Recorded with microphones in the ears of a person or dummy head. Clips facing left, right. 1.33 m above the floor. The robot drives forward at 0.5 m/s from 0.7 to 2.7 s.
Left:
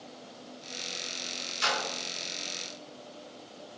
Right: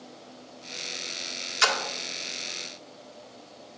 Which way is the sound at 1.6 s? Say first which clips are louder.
Right 4 dB; 80° right.